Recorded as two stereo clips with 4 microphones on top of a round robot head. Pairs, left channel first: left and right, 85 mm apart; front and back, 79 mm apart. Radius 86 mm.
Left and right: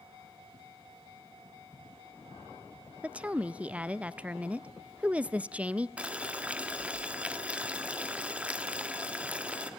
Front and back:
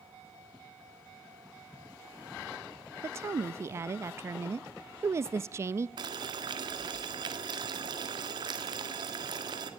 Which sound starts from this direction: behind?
Boiling, at 6.0 s.